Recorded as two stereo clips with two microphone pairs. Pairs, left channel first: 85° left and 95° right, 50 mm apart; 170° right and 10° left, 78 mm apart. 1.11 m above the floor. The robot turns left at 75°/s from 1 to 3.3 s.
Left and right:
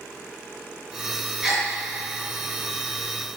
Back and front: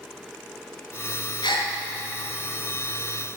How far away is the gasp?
About 5.5 m.